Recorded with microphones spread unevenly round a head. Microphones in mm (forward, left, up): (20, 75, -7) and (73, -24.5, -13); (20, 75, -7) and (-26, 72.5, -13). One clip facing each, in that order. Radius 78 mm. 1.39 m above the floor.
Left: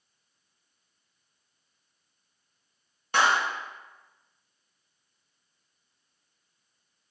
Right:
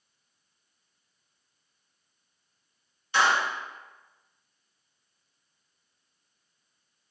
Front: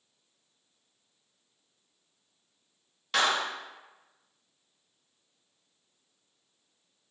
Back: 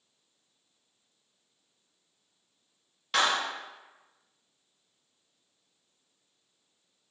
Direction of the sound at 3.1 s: 90° left.